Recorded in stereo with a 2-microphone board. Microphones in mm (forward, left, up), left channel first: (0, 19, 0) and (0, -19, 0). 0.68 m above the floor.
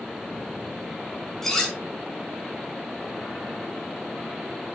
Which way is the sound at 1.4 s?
10° left (ahead or behind).